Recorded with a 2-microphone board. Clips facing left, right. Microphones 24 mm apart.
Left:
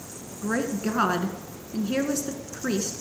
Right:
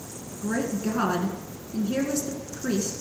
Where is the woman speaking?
25° left (ahead or behind), 1.2 m.